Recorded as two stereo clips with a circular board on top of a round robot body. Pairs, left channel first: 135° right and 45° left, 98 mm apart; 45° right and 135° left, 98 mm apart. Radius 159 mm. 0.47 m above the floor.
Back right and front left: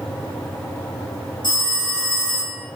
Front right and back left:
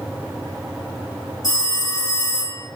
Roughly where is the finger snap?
No finger snap in this recording.